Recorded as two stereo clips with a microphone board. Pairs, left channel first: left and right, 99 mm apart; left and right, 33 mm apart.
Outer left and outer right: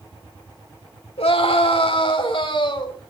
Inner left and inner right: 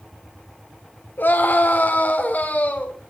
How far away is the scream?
About 3.5 m.